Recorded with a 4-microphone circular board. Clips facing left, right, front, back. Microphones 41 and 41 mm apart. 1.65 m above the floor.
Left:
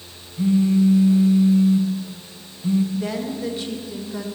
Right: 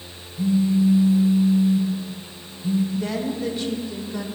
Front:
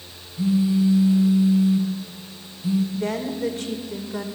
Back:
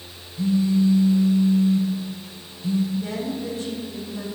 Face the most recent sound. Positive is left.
turn(degrees=5)